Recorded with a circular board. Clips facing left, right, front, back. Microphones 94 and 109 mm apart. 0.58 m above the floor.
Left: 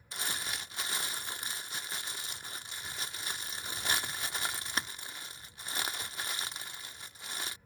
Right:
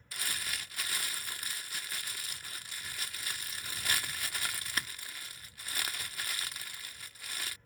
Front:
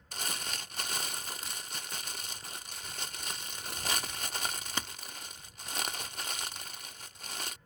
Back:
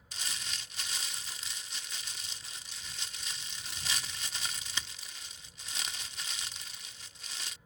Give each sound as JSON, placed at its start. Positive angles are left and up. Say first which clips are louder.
{"t": 0.1, "sound": "crumpling", "louder": "left 2 dB, front 5 dB", "azimuth_deg": 25}